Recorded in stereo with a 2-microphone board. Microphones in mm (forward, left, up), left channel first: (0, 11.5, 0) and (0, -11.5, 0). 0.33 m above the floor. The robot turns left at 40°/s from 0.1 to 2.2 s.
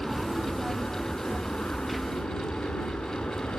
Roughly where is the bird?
No bird in this recording.